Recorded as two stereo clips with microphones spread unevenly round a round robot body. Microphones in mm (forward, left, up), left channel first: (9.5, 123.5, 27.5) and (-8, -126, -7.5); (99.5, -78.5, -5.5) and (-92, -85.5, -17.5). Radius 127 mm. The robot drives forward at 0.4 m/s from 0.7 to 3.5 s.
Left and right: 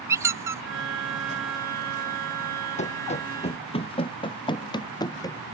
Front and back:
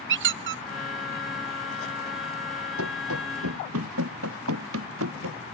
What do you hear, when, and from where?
0.1 s a squeak: 170° right
2.8 s running footsteps: 150° left; by 5.4 s 160° left